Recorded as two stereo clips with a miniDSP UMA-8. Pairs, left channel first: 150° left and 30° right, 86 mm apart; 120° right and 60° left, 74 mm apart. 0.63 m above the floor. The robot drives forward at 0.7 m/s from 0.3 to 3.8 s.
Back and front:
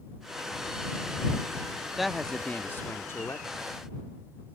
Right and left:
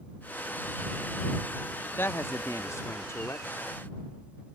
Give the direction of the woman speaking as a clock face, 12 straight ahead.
4 o'clock.